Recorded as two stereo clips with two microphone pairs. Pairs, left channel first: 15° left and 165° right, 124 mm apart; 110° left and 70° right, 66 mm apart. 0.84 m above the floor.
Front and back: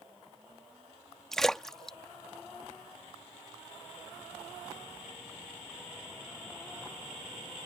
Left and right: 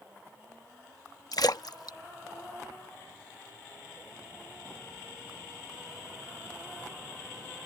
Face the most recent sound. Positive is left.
turn(degrees=105)